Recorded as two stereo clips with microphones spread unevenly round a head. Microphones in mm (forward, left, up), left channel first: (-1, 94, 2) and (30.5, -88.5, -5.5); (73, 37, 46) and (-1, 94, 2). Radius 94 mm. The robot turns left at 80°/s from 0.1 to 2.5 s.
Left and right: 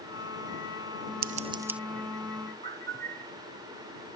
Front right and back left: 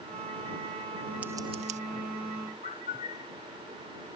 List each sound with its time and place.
1.2 s scissors: 120° right; by 1.8 s 170° right
2.6 s a bird: 45° right